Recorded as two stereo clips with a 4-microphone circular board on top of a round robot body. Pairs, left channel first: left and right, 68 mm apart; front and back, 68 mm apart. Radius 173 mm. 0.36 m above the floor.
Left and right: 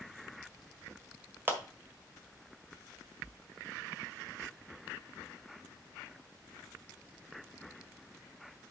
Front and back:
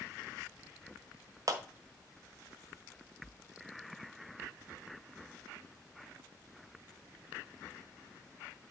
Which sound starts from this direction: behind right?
A clap, at 1.5 s.